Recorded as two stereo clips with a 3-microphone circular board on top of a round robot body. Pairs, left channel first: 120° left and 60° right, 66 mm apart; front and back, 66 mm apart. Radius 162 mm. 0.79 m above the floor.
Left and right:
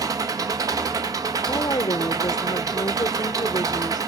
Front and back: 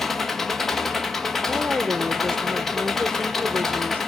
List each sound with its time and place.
0.0 s an engine running: 85° right, 1.2 m
1.5 s a woman speaking: 115° left, 0.5 m